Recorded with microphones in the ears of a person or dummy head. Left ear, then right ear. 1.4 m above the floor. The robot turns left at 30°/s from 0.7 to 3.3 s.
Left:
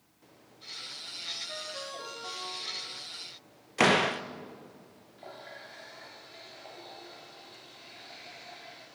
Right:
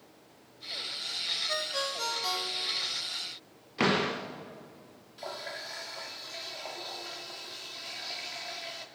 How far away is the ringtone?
About 5 m.